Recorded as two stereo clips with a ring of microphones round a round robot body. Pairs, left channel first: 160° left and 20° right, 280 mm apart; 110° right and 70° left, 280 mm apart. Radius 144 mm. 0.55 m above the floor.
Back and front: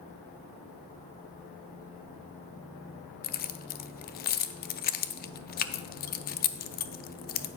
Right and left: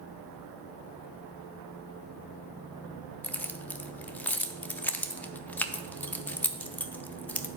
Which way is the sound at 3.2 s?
170° left.